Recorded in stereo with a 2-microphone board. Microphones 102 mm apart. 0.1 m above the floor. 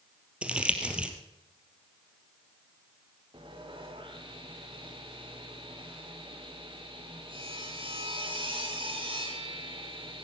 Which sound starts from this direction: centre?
Crumpling, at 0.4 s.